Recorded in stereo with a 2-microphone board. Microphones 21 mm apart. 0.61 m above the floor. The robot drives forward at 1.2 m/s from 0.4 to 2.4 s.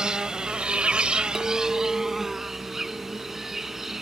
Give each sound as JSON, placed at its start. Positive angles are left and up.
{"t": 0.0, "sound": "an insect", "side_deg": -50}
{"t": 1.4, "sound": "a clink", "side_deg": 0}